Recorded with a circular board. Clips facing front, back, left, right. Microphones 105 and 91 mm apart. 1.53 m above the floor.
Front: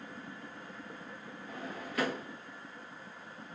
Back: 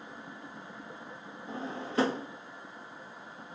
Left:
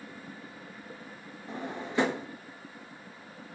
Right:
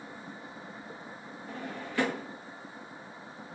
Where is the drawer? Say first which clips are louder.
Back 5 dB, left 3 dB; 140° left, 0.7 m.